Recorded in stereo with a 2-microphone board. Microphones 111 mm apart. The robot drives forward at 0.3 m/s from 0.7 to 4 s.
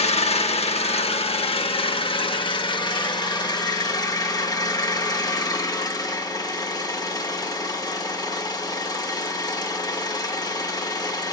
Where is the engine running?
65° left (ahead or behind), 0.9 m; by 11.3 s 35° left (ahead or behind), 1.4 m.